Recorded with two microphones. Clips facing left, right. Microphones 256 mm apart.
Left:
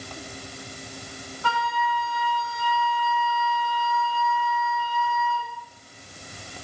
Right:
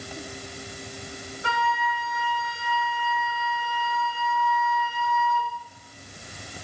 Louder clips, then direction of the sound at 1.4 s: Left 1 dB; 20° right (ahead or behind).